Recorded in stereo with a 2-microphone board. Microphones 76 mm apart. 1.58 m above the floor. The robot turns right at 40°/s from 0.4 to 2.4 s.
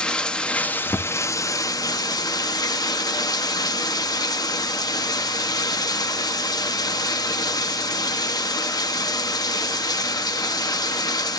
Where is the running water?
15° left, 1.4 m; by 11.4 s 95° left, 1.4 m.